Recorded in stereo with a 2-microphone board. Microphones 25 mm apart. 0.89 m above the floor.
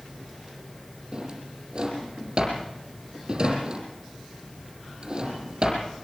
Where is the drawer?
35° right (ahead or behind), 6 m.